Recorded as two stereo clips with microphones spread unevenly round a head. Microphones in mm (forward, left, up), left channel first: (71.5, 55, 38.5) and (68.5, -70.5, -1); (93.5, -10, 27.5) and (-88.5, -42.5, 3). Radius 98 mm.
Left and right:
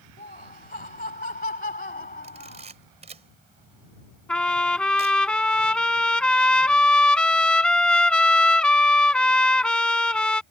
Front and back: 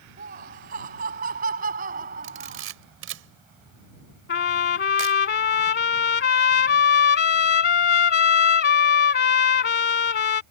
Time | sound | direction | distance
0.2 | laughter | 140° left | ?
2.2 | a camera shutter | 155° right | ?
4.3 | a trumpet | 20° left | ?